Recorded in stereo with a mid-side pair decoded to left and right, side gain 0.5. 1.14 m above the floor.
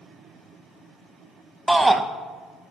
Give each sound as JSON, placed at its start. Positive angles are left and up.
{"t": 1.7, "sound": "a shout", "azimuth_deg": -10, "distance_m": 0.6}